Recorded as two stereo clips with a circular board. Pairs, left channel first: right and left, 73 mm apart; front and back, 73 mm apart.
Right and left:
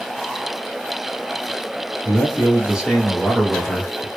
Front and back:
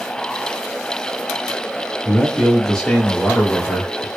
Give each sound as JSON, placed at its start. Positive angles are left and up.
{"t": 2.0, "sound": "a man speaking", "azimuth_deg": 95, "distance_m": 1.6}